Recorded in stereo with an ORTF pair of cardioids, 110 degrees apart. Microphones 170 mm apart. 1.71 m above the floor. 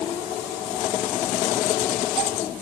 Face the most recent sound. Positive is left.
No sound to turn to.